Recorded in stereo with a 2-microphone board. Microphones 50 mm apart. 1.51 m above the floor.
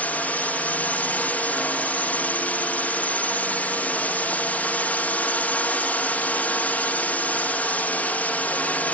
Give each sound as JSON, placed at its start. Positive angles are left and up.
{"t": 0.0, "sound": "a drone", "side_deg": 30}